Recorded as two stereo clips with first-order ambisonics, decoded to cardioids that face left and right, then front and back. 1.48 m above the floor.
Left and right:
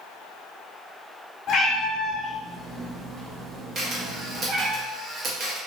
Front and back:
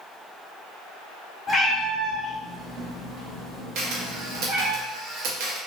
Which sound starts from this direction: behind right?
A camera shutter, at 3.8 s.